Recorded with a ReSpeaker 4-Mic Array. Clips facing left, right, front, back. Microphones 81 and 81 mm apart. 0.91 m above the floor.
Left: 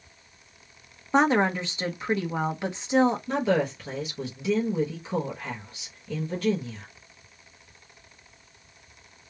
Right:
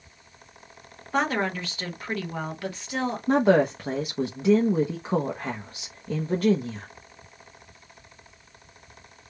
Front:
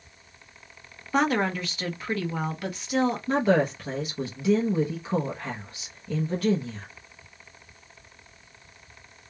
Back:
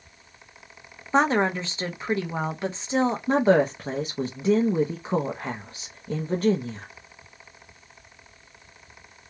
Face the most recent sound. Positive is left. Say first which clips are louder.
# right 5 dB, back 5 dB
turn(degrees=-130)